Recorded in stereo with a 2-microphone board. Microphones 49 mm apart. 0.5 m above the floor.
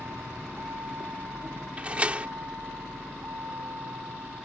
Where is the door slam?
25° right (ahead or behind).